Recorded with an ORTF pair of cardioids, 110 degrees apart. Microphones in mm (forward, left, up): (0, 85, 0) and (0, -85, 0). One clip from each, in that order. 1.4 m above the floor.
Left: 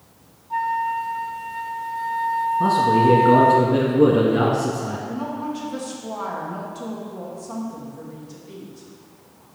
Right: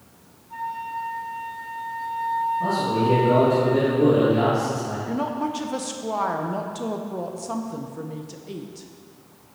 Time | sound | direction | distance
0.5 | a flute | 40° left | 0.6 m
2.6 | a man speaking | 55° left | 1.8 m
5.1 | a woman speaking | 40° right | 1.0 m